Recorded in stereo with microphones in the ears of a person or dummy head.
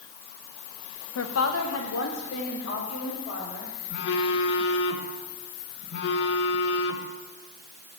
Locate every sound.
1.1 s a woman speaking: 65° left (ahead or behind), 0.9 m
3.9 s a phone buzzing: 60° left (ahead or behind), 0.9 m